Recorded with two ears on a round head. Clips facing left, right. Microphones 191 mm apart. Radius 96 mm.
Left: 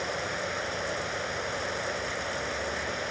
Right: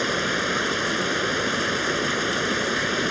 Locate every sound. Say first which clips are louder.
0.0 s running water: right 7 dB; 85° right